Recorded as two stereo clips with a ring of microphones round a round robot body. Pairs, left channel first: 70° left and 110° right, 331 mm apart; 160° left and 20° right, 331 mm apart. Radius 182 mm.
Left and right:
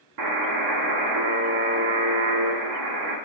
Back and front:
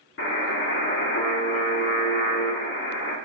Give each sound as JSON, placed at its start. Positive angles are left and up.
{"t": 0.2, "sound": "a buzzer", "azimuth_deg": -145, "distance_m": 1.4}